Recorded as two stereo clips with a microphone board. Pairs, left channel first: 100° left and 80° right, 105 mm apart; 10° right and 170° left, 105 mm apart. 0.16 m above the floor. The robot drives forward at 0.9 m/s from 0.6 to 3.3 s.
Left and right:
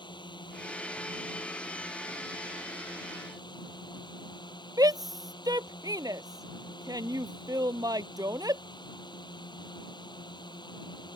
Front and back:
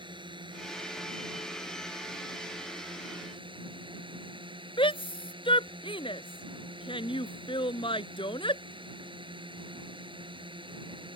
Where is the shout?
30° right.